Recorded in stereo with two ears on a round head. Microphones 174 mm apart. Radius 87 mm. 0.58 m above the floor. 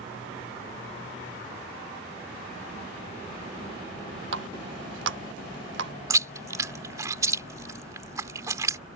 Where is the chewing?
20° right (ahead or behind).